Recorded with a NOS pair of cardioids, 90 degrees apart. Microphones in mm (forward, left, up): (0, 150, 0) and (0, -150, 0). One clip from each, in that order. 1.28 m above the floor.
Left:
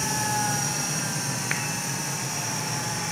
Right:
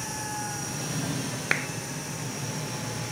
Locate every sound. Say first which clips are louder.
0.0 s a machine running: left 7 dB; 55° left
1.5 s a clap: right 4 dB; 30° right